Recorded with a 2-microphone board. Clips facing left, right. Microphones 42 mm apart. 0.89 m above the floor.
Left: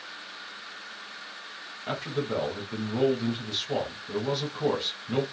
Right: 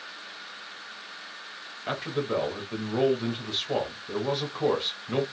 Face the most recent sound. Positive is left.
turn(degrees=-20)  # may be behind; listen again after turning